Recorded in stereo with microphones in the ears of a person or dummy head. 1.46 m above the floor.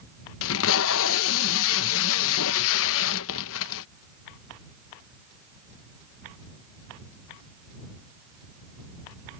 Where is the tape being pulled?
75° left (ahead or behind).